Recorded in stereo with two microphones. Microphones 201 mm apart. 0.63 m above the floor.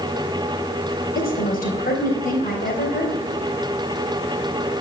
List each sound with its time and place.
1.1 s a woman speaking: 45° left (ahead or behind), 3 m